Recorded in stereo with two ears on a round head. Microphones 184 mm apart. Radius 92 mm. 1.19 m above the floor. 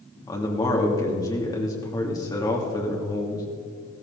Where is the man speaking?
20° left (ahead or behind), 2.5 m.